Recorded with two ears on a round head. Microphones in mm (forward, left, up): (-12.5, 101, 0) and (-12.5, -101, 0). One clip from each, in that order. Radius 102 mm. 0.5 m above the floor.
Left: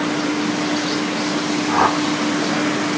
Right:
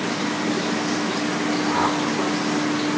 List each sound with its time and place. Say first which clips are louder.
1.7 s a whoosh: left 6 dB; 35° left (ahead or behind), 1.2 m